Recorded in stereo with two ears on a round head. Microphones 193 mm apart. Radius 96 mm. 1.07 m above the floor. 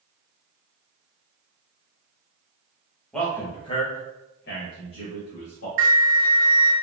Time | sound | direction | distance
3.1 | a man speaking | 5° left (ahead or behind) | 0.9 m
5.8 | a flute | 40° right (ahead or behind) | 0.9 m